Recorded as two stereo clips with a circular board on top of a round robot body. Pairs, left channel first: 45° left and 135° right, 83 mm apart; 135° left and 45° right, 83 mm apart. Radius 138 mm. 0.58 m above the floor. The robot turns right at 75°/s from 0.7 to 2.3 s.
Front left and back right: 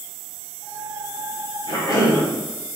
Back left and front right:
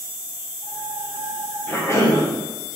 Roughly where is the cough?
Ahead left.